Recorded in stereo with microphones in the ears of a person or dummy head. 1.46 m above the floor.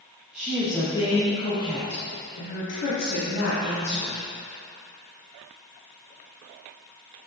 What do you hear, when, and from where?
0.3 s a woman speaking: 5° right (ahead or behind), 1.3 m; by 4.2 s 80° left, 3.5 m